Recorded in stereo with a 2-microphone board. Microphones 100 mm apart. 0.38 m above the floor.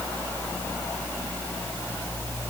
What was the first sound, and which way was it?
Only background noise.